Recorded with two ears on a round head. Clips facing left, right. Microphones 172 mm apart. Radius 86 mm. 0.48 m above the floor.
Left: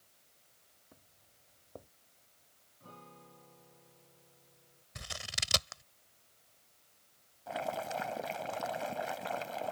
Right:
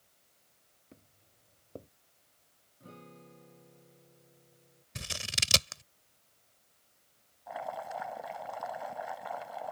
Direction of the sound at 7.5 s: 40° left (ahead or behind).